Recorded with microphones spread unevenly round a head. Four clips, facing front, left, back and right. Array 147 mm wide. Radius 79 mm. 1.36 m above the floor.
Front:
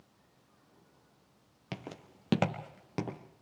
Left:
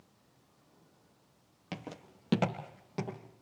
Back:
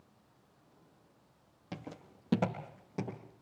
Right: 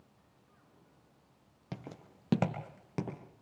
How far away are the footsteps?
About 2 m.